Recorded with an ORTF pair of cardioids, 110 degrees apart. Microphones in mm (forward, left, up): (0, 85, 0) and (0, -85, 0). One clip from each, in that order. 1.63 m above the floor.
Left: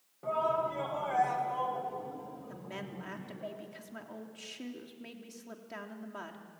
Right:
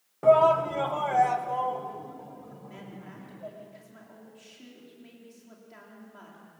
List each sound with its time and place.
0.2 s a shout: 70° right, 1.3 m; by 3.5 s 5° right, 3.5 m
2.5 s a woman speaking: 50° left, 3.5 m